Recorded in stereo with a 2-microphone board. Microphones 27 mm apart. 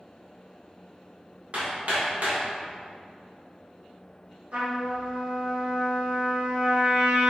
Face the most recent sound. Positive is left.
turn(degrees=-55)  # may be behind; listen again after turning